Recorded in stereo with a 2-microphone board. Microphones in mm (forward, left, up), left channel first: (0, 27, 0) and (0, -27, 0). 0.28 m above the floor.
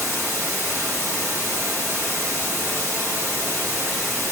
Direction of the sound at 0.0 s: 50° right (ahead or behind).